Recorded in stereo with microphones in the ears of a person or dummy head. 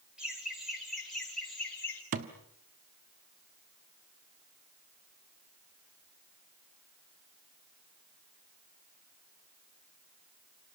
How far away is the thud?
About 1.4 m.